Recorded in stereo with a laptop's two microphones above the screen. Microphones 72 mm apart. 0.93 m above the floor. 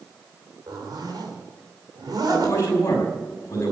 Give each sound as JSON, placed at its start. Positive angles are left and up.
{"t": 0.7, "sound": "a zipper", "side_deg": -70, "distance_m": 3.5}
{"t": 2.3, "sound": "a man speaking", "side_deg": 40, "distance_m": 6.0}